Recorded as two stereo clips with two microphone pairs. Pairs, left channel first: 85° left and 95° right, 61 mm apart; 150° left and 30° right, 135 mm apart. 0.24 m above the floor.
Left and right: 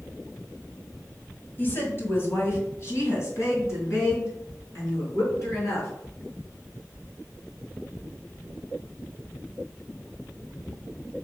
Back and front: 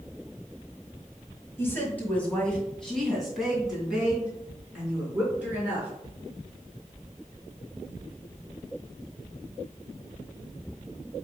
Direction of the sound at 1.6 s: 90° left.